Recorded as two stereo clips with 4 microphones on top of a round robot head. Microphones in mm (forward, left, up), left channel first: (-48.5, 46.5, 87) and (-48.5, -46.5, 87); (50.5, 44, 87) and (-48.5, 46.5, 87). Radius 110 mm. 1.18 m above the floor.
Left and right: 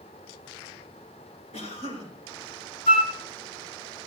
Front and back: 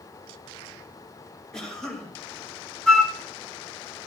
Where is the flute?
80° left, 1.2 m.